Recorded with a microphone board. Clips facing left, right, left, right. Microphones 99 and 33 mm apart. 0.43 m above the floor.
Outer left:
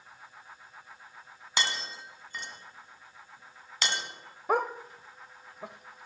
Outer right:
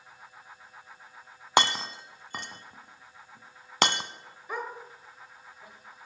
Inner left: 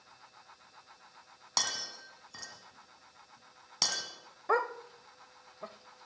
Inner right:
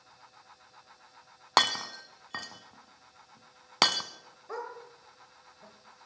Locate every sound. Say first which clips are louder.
1.6 s breaking glass: outer right 9 dB, inner right 10 dB; 60° right (ahead or behind), 1.0 m
4.5 s a dog barking: outer left 8 dB, inner left 9 dB; 70° left (ahead or behind), 0.8 m